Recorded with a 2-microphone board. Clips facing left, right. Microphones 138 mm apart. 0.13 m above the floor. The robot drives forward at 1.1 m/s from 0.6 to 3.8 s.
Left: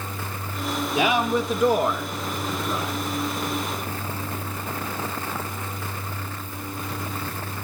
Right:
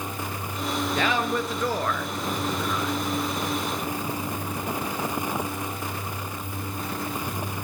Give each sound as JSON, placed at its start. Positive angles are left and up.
{"t": 0.9, "sound": "a man speaking", "side_deg": 10, "distance_m": 2.5}